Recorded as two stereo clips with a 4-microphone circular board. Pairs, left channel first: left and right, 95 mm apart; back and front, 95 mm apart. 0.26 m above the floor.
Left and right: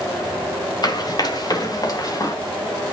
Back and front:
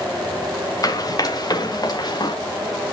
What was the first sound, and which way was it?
Running footsteps, 130° left.